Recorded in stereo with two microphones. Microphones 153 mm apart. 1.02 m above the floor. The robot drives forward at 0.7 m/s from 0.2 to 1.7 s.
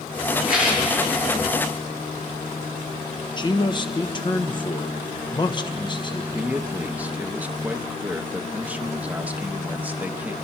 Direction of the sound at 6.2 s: 10° right (ahead or behind).